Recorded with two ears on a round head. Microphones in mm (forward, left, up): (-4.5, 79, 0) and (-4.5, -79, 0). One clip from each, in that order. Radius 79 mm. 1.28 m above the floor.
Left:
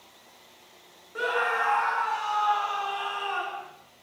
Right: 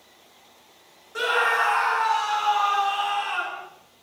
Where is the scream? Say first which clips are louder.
Right 5 dB; 75° right (ahead or behind), 1.6 m; by 3.7 s 85° right, 3.5 m.